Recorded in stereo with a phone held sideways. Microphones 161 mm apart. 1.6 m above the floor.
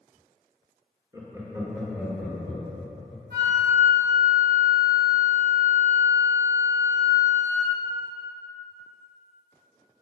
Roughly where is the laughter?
Right.